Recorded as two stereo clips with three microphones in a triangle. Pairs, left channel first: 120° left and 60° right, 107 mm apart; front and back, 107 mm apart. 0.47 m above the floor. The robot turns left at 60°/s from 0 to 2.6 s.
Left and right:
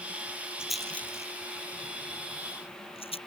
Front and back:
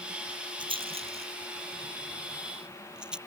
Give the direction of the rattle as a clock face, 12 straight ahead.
5 o'clock.